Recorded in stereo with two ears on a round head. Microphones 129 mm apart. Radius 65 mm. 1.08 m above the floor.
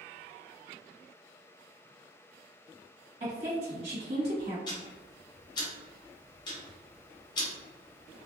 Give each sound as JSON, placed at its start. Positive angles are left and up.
{"t": 3.2, "sound": "a woman speaking", "side_deg": -45, "distance_m": 1.7}
{"t": 4.7, "sound": "ticking", "side_deg": 35, "distance_m": 0.9}